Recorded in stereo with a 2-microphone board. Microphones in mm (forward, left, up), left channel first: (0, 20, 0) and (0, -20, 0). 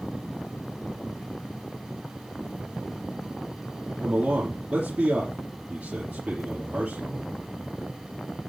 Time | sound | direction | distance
4.0 | a man speaking | 45° right (ahead or behind) | 3.5 m